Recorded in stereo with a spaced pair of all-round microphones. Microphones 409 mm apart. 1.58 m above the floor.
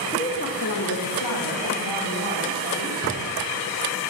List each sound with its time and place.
0.1 s a woman speaking: 15° left (ahead or behind), 0.5 m; by 2.9 s 85° left, 1.8 m
3.0 s a drawer: 40° right (ahead or behind), 1.8 m